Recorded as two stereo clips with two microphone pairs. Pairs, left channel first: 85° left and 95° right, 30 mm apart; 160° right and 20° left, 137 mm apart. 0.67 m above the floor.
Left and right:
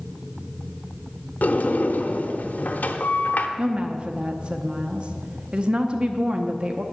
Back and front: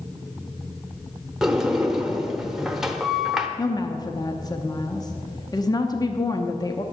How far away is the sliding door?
About 0.8 m.